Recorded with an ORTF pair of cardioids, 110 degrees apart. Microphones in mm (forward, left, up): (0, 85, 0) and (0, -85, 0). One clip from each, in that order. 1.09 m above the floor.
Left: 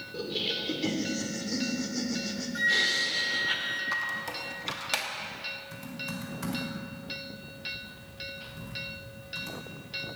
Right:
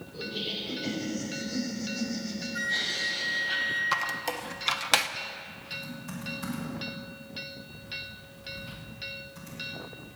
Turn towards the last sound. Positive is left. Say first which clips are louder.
# even
turn(degrees=25)